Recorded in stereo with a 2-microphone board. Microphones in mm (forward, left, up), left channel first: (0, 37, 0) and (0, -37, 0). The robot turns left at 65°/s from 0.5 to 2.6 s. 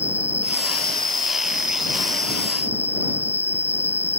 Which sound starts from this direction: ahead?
An insect, at 0.0 s.